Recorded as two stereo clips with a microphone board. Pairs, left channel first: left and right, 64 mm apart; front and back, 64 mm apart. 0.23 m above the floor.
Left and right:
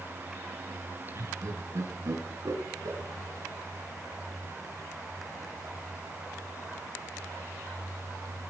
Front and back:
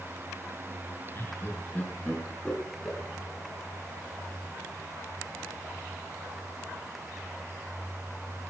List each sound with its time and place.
1.1 s laughter: 50° right, 3.5 m; by 3.0 s 90° right, 3 m